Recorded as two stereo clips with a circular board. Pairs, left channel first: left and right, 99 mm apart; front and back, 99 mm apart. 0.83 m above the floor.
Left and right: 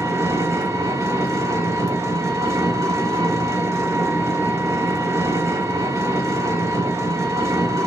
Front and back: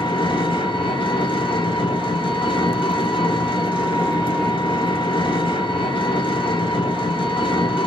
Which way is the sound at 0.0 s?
30° right.